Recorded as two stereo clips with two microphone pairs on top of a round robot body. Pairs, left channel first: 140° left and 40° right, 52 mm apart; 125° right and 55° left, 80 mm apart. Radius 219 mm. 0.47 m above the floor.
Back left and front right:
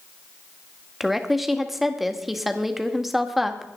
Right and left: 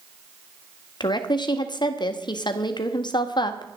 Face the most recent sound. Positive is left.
turn(degrees=-125)